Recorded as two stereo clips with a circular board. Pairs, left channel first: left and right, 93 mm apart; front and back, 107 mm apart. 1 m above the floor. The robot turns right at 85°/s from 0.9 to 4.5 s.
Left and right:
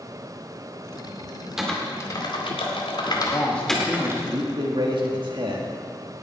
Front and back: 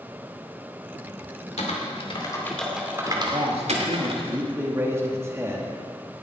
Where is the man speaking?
130° left, 2 m; by 5.8 s 115° right, 2 m.